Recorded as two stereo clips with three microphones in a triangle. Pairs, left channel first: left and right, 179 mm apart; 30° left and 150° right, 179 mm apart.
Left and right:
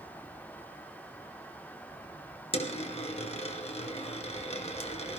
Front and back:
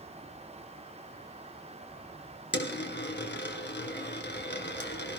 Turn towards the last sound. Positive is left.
turn(degrees=40)